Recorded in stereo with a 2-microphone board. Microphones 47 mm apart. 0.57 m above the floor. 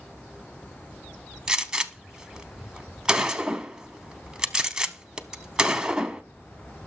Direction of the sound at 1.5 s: 15° right (ahead or behind).